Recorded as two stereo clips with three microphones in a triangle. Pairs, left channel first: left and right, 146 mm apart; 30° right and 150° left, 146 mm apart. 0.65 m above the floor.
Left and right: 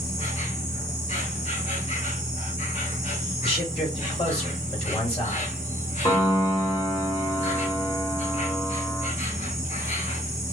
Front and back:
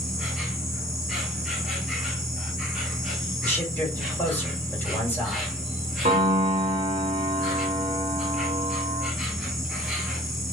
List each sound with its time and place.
0.0 s an insect: 60° left, 1.1 m
3.4 s a man speaking: 45° left, 1.8 m
6.0 s a piano: 140° left, 1.0 m